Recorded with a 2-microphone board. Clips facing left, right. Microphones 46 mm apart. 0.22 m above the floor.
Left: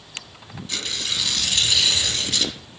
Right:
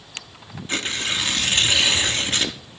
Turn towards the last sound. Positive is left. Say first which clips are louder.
# right 4 dB
turn(degrees=-40)  # may be behind; listen again after turning